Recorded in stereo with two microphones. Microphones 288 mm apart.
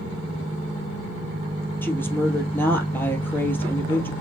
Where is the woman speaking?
5° left (ahead or behind), 2.5 m.